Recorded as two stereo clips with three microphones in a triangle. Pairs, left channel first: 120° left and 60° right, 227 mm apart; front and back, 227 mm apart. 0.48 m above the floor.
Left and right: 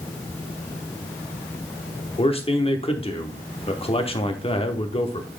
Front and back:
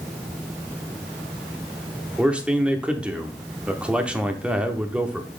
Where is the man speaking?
100° left, 0.8 m.